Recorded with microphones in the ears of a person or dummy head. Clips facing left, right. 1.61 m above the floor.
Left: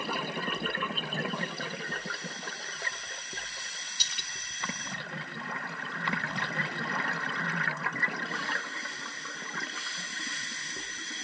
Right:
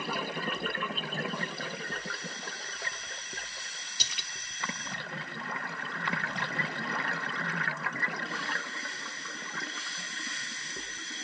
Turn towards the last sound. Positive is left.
turn(degrees=-65)  # may be behind; listen again after turning